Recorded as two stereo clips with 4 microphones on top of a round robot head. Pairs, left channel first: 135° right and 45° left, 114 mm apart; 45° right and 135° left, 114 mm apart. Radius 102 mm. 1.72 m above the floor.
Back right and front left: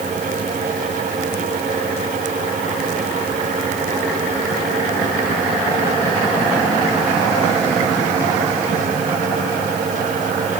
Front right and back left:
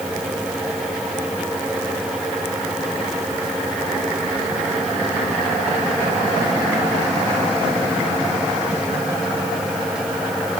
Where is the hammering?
No hammering in this recording.